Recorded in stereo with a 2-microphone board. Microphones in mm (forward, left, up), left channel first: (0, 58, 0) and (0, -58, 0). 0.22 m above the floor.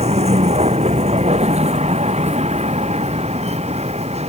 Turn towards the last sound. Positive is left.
turn(degrees=-75)  # may be behind; listen again after turning